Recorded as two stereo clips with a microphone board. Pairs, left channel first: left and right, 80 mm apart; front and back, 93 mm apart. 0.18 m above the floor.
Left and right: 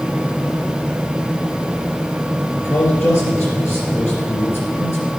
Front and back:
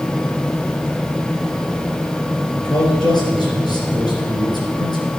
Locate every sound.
2.5 s a man speaking: 35° left, 3 m